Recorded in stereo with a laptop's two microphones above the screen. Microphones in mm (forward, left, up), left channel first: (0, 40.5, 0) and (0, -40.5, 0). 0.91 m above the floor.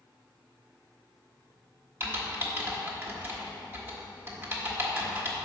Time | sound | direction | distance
2.0 | typing on a keyboard | 30° right (ahead or behind) | 1.3 m